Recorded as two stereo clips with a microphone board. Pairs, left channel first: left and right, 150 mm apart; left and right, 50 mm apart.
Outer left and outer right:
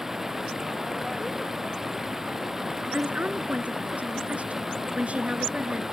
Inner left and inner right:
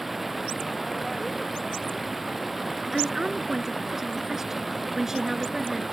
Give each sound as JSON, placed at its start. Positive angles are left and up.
{"t": 0.0, "sound": "running water", "side_deg": -5}
{"t": 2.9, "sound": "a woman speaking", "side_deg": -10}